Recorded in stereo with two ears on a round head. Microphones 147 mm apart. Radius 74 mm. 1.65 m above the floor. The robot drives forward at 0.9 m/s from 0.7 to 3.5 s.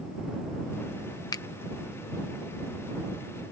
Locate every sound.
1.3 s a finger snap: 25° left (ahead or behind); by 1.4 s 20° left (ahead or behind)